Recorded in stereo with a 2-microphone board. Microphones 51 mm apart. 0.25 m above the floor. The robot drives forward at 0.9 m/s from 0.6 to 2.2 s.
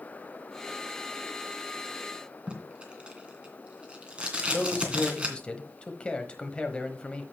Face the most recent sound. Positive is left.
turn(degrees=20)  # may be behind; listen again after turning